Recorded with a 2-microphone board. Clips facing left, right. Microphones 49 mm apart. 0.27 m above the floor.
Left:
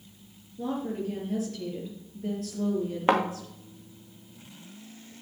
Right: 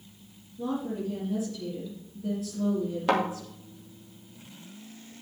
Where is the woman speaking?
60° left (ahead or behind), 5.5 m.